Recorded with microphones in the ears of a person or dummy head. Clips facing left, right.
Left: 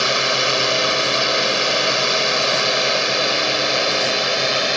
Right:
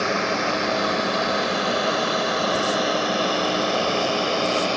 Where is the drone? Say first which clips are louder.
Left 1 dB; 50° left (ahead or behind); by 4.8 s 25° left (ahead or behind).